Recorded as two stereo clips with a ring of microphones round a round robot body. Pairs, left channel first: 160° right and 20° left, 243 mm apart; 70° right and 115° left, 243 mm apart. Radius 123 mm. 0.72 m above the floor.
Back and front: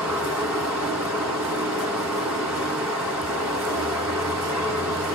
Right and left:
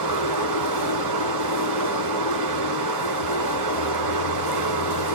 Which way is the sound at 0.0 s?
110° left.